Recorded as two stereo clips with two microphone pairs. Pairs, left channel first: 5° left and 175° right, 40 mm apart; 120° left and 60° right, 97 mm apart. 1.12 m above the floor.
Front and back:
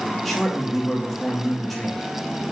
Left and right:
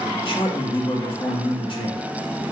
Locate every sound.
0.2 s a man speaking: 95° left, 1.5 m